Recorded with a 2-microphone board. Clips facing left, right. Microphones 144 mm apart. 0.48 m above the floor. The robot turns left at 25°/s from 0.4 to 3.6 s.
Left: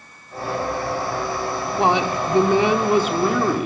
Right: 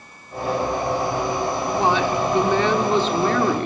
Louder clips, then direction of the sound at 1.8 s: Left 1 dB; 20° left (ahead or behind).